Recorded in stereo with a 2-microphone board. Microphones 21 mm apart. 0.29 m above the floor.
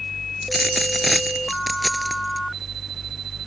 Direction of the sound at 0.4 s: Centre (ahead or behind).